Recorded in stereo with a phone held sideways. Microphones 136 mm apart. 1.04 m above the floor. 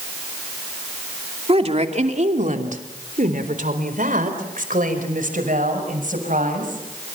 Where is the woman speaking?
45° right (ahead or behind), 2.5 m; by 6.8 s 75° right (ahead or behind), 7 m.